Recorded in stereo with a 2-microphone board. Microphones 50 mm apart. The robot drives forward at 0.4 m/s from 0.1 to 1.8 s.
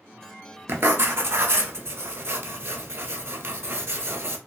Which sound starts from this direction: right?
Writing, at 0.7 s.